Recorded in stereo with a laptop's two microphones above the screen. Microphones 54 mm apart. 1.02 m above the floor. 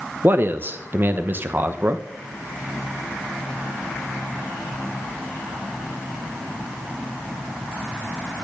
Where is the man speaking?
40° right (ahead or behind), 0.8 m.